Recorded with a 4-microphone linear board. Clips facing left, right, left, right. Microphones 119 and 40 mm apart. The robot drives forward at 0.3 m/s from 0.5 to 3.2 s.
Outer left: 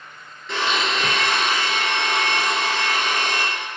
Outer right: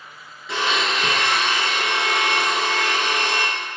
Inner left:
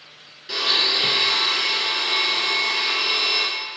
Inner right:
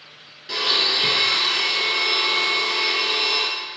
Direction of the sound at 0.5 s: Centre (ahead or behind).